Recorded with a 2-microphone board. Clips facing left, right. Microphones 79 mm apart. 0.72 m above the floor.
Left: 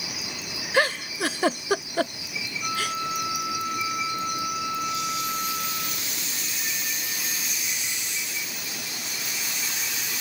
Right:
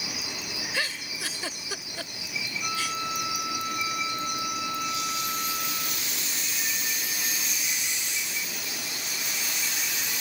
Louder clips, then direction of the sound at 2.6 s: Left 4 dB; 15° left (ahead or behind).